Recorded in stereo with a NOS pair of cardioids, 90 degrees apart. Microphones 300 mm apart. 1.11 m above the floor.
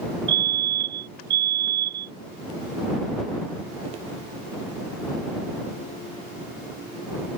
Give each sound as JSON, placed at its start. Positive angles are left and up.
{"t": 0.3, "sound": "a fire alarm", "azimuth_deg": -40}